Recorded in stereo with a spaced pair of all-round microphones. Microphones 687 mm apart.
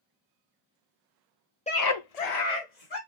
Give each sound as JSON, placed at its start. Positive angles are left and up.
{"t": 1.7, "sound": "a scream", "side_deg": 10, "distance_m": 0.6}